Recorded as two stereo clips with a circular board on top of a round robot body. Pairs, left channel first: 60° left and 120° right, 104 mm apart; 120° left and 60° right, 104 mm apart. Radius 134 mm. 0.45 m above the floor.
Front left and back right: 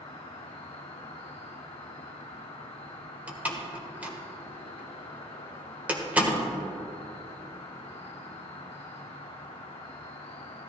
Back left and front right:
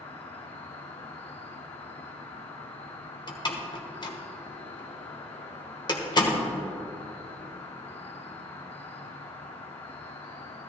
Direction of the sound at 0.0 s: 95° left.